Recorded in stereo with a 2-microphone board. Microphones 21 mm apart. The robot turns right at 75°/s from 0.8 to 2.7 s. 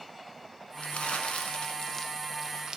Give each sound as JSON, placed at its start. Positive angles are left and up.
{"t": 0.8, "sound": "crumpling", "azimuth_deg": 70, "distance_m": 0.9}